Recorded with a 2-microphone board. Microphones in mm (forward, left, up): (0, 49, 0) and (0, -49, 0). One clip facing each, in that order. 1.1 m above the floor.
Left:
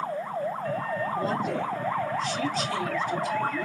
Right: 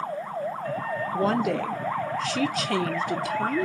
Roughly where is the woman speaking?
Right.